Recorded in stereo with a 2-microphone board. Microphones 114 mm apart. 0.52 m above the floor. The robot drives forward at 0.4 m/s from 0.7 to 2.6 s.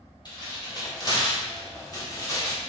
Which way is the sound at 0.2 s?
40° left (ahead or behind).